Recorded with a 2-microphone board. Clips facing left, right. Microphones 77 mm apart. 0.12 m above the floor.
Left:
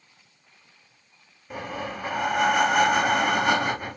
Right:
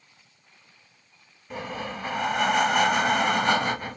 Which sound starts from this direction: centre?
Breathing, at 1.5 s.